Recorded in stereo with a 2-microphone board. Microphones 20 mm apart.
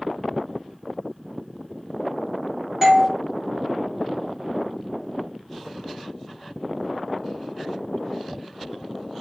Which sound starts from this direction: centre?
A doorbell, at 2.8 s.